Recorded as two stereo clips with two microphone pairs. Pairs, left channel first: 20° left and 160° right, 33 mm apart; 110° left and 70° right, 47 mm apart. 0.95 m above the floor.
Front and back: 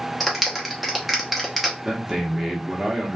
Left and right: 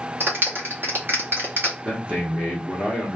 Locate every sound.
0.2 s a clap: 70° right, 0.8 m
1.9 s a man speaking: 90° right, 0.9 m